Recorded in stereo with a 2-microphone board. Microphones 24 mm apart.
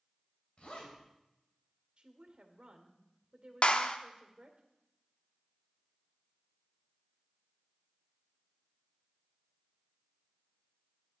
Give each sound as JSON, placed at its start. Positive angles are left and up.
{"t": 0.6, "sound": "a zipper", "side_deg": 60, "distance_m": 3.5}
{"t": 2.0, "sound": "a woman speaking", "side_deg": -60, "distance_m": 2.0}
{"t": 3.6, "sound": "a clap", "side_deg": 55, "distance_m": 0.8}